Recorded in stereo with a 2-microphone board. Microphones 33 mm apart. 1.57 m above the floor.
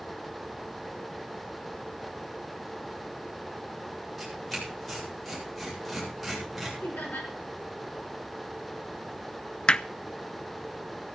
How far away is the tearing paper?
About 8 m.